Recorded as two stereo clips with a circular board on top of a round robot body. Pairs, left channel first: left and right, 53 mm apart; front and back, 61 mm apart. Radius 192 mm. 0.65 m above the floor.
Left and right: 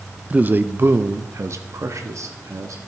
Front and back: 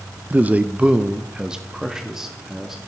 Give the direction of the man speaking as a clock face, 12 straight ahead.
5 o'clock.